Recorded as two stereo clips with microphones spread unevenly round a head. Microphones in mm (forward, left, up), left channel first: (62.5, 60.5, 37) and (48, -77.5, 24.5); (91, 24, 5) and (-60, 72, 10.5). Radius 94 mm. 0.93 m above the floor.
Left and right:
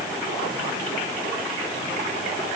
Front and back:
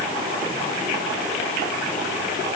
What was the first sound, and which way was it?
Only background noise.